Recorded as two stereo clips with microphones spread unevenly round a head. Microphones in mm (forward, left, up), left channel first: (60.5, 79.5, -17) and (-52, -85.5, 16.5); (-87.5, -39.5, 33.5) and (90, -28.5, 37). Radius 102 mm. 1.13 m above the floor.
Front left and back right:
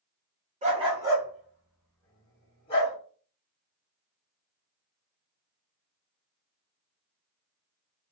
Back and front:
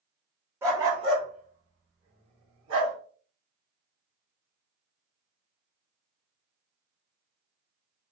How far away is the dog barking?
About 1.1 m.